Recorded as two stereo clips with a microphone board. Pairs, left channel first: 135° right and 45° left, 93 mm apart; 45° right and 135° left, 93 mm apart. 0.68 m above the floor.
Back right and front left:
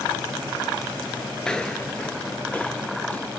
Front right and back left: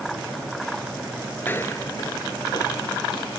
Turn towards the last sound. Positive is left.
turn(degrees=-65)